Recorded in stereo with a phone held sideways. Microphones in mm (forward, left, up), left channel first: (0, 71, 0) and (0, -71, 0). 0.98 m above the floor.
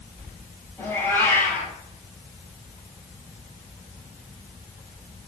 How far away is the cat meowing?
About 4.5 m.